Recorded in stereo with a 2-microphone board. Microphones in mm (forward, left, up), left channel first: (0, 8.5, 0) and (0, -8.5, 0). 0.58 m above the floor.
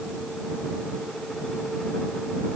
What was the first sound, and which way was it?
Only background noise.